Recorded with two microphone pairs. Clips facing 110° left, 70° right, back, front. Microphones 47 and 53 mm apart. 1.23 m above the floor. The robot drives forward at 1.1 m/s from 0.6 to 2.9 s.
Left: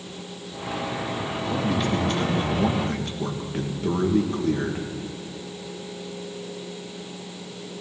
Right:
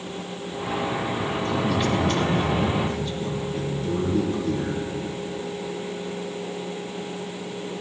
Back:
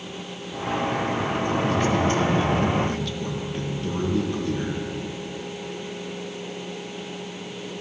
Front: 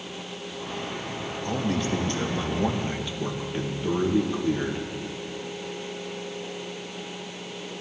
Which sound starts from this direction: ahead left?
A man speaking, at 1.4 s.